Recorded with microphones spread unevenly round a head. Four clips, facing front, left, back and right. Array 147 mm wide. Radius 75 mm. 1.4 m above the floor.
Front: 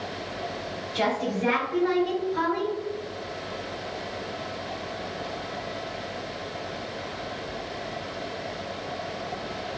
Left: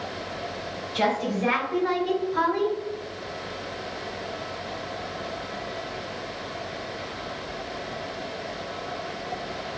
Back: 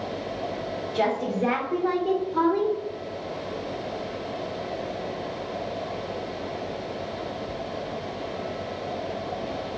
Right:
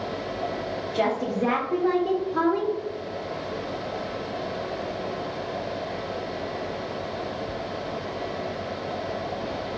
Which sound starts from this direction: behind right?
A woman speaking, at 0.9 s.